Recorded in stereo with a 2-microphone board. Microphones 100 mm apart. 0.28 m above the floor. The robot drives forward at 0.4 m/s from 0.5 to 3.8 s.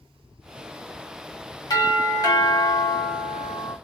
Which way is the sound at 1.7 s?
40° left (ahead or behind).